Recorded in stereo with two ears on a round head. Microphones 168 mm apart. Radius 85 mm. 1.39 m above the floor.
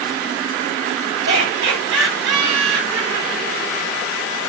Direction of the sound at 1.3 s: 70° right (ahead or behind).